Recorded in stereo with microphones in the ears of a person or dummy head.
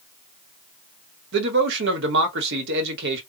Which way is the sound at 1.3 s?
60° right (ahead or behind).